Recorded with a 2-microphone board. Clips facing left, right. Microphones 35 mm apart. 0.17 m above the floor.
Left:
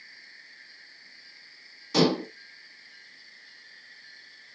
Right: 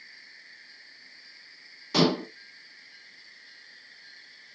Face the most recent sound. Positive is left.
turn(degrees=-10)  # may be behind; listen again after turning